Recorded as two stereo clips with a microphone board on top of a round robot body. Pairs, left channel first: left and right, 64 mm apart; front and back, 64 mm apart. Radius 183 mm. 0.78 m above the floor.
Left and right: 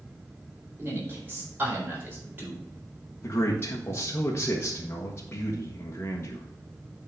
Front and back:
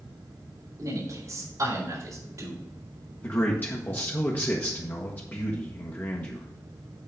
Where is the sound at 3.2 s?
50° left, 1.5 m.